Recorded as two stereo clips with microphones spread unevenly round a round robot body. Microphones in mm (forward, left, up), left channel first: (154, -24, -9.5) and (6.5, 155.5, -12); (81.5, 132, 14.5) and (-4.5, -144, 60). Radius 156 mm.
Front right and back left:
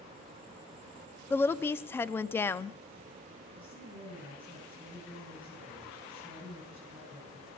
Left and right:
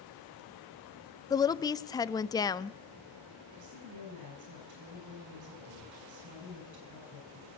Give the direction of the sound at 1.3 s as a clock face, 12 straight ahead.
11 o'clock.